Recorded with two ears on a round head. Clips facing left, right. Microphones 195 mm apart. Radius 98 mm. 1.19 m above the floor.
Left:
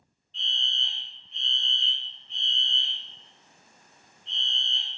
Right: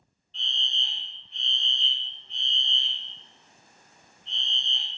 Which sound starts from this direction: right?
A fire alarm, at 0.3 s.